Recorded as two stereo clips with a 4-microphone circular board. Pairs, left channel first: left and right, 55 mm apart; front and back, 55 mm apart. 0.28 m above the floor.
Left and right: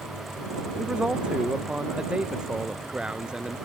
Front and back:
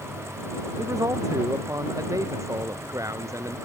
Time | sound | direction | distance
0.8 | a man speaking | 165° right | ?